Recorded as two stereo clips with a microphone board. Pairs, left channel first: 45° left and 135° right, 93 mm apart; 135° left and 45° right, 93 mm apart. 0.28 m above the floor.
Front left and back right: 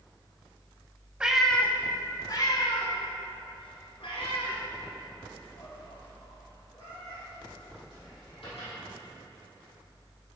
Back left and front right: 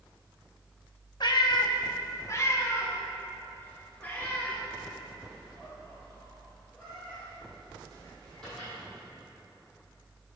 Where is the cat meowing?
150° left, 0.6 m; by 8.7 s 50° left, 4.5 m.